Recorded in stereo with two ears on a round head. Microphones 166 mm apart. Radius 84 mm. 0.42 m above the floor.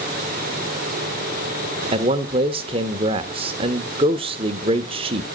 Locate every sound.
1.9 s a man speaking: 30° right (ahead or behind), 1.0 m